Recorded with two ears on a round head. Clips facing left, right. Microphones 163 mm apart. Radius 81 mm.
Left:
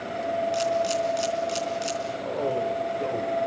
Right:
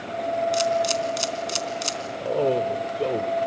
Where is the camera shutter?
65° right (ahead or behind), 3.5 m.